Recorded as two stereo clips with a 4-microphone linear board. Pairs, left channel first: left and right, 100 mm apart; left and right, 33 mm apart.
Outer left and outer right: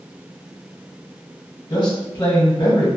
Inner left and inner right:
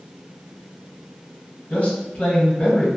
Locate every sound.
1.7 s a man speaking: 50° left (ahead or behind), 1.1 m